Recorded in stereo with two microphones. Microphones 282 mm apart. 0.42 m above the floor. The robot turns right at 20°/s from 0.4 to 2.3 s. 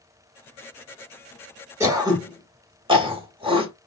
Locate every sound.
1.8 s throat clearing: 10° right (ahead or behind), 1.1 m; by 3.9 s 20° right (ahead or behind), 1.1 m